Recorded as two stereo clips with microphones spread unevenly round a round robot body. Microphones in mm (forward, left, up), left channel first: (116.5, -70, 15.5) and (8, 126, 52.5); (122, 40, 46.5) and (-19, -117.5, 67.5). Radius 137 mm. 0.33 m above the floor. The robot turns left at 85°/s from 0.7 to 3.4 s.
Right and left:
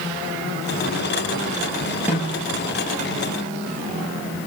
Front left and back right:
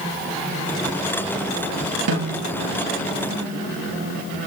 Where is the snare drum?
155° right, 9 m; by 2.5 s 175° left, 9 m.